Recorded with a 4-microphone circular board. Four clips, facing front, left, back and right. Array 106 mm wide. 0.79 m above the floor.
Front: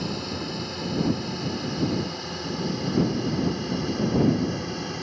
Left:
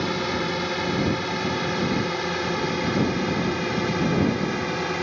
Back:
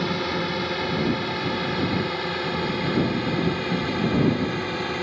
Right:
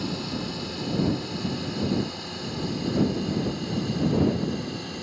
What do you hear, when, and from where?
0.0 s a drone: 125° left; by 5.0 s 115° left